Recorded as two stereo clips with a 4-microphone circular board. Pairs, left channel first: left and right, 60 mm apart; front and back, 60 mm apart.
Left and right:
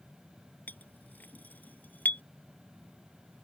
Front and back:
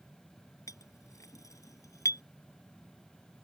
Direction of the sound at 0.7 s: 30° left.